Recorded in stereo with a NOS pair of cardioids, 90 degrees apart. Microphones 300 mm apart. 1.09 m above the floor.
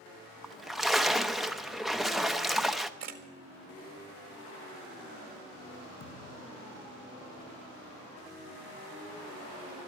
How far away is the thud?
About 5.5 m.